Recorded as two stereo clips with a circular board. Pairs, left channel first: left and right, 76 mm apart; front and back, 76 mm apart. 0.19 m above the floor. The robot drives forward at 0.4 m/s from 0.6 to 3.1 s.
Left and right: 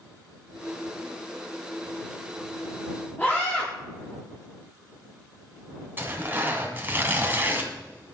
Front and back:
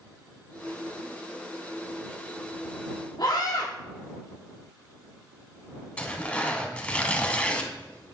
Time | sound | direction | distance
3.2 | a scream | 25° left | 3.5 m
6.0 | tearing paper | 60° right | 1.7 m